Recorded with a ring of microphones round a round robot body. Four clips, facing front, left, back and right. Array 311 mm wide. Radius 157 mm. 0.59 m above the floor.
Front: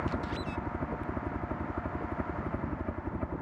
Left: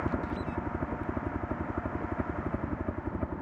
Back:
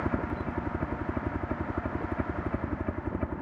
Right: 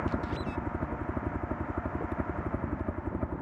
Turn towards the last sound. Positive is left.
turn(degrees=175)